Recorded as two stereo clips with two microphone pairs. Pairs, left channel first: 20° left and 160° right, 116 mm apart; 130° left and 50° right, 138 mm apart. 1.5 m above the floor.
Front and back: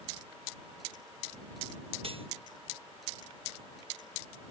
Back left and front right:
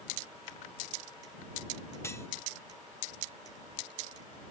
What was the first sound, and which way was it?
Cutlery clinking, 165° right.